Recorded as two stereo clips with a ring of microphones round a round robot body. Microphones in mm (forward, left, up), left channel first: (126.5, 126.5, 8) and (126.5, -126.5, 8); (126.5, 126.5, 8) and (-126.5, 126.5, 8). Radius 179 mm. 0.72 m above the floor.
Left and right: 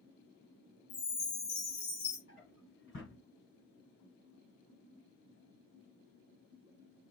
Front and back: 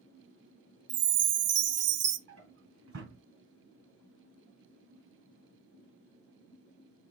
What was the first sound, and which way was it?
A chime, 155° left.